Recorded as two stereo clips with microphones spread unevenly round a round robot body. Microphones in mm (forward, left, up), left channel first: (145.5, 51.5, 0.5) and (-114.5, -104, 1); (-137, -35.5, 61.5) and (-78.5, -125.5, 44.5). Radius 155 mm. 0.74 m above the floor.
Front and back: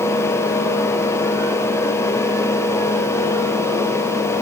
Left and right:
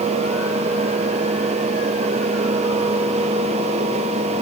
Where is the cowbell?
No cowbell in this recording.